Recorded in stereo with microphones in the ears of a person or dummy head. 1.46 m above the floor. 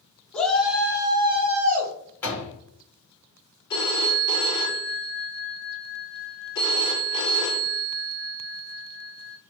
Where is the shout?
5° left (ahead or behind), 1.4 m; by 1.9 s 45° right (ahead or behind), 1.2 m.